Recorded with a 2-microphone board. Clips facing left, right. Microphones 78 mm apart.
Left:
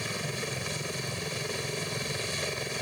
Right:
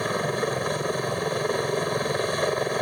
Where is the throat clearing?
No throat clearing in this recording.